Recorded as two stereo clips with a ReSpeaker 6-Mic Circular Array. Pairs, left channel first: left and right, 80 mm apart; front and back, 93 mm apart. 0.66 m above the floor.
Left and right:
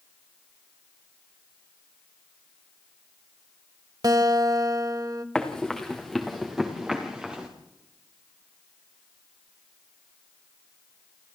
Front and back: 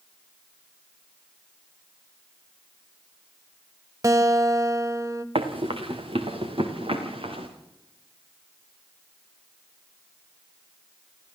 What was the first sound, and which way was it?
A guitar, 125° right.